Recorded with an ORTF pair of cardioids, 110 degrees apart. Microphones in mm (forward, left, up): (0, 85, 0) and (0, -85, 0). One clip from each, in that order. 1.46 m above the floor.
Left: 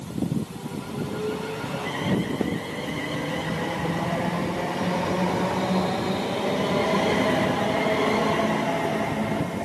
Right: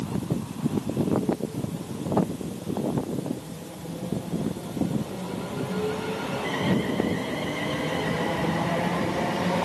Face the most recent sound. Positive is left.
No sound to turn to.